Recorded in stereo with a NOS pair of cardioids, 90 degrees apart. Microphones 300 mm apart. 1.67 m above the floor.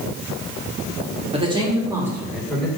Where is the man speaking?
20° right, 3.5 m; by 2.7 s straight ahead, 4 m.